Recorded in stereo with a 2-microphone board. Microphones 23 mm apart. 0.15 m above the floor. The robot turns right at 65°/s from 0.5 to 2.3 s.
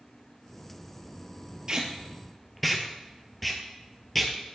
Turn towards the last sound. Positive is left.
turn(degrees=0)  # may be behind; listen again after turning